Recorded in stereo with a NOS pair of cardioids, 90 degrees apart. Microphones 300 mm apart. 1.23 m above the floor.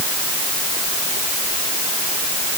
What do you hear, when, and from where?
Only background noise.